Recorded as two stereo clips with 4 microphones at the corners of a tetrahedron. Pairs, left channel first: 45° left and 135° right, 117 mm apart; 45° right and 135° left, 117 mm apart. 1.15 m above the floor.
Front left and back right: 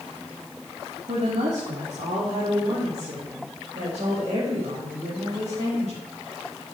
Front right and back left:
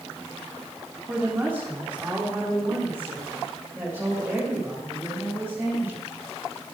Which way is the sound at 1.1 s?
150° right.